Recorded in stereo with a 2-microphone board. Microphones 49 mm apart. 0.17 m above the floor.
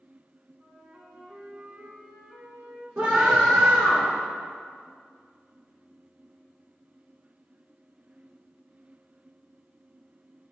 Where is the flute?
40° right (ahead or behind), 1.7 m.